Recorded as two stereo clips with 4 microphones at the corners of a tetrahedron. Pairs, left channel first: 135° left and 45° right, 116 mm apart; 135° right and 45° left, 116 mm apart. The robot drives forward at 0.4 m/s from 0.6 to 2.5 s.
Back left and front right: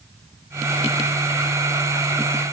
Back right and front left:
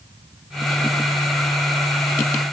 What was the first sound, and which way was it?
Only background noise.